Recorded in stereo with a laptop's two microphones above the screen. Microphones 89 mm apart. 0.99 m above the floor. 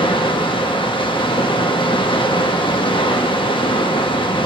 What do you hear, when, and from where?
0.0 s running water: 70° left (ahead or behind), 1.0 m